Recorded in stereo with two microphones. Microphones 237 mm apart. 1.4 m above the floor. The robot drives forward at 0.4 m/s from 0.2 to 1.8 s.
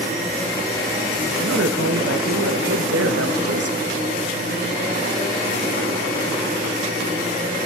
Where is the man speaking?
70° right (ahead or behind), 0.7 m; by 4.0 s 80° right, 0.7 m.